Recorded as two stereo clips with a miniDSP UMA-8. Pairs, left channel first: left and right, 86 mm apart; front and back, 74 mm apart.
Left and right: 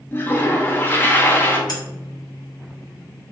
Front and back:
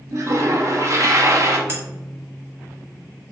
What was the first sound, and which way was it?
A toilet flushing, 150° left.